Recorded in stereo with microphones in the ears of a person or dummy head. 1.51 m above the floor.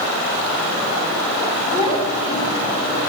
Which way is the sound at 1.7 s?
35° left (ahead or behind).